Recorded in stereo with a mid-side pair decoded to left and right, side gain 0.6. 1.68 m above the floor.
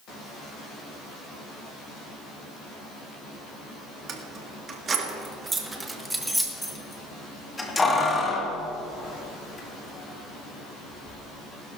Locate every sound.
4.1 s keys jangling: 45° right, 2.5 m; by 11.2 s 50° left, 4 m